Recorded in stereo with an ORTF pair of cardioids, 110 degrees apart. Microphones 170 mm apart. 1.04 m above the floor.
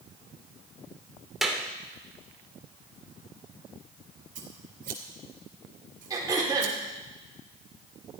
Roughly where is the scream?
I don't hear a scream.